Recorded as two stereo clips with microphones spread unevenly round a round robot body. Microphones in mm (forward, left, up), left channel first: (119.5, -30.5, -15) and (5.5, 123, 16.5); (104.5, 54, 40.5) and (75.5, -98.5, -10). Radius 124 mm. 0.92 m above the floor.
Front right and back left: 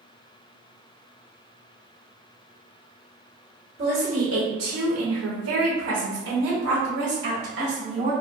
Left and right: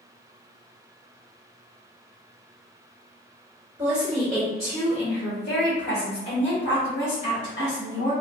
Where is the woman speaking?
170° right, 0.8 m; by 8.1 s 85° left, 1.9 m.